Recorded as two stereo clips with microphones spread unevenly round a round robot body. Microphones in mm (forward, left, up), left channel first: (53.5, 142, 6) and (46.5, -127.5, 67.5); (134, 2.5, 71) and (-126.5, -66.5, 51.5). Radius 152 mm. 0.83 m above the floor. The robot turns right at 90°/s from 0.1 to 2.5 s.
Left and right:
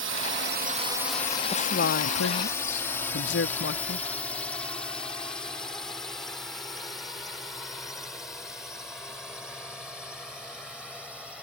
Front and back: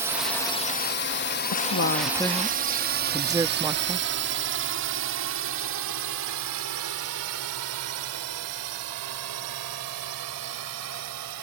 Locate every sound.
0.0 s a drone: 100° right; by 11.4 s straight behind
1.5 s a woman speaking: 30° left; by 4.1 s 120° left